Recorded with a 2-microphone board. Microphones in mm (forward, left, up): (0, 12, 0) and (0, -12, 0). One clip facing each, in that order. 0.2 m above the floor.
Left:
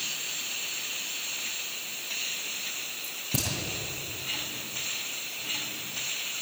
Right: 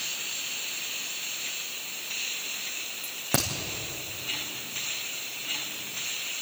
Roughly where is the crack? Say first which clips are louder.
Right 4 dB; right.